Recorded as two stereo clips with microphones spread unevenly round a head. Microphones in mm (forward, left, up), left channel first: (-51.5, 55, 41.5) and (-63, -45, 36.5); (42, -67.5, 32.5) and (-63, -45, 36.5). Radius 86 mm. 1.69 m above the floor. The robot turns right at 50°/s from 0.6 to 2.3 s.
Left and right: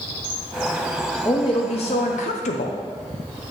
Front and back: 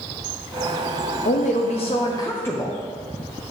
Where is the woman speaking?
10° left, 0.7 m; by 2.8 s 65° left, 0.7 m.